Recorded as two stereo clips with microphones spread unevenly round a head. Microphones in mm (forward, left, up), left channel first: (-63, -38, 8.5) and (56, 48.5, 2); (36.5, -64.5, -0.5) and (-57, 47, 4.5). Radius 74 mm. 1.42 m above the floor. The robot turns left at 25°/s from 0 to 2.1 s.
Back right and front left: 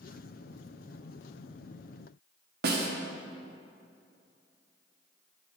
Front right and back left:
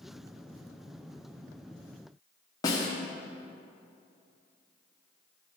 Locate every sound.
2.6 s a snare drum: 15° left, 1.1 m